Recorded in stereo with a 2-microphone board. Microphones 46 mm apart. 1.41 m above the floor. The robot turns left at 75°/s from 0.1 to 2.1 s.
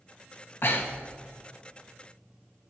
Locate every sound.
0.6 s breathing: 60° left (ahead or behind), 1.0 m; by 1.1 s 20° left (ahead or behind), 1.0 m